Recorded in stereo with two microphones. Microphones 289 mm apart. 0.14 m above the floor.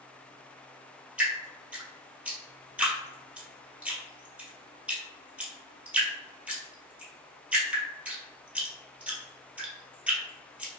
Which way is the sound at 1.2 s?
5° right (ahead or behind).